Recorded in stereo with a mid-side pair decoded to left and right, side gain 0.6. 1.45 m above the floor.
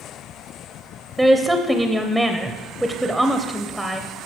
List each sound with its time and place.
1.2 s a woman speaking: 5° right, 0.5 m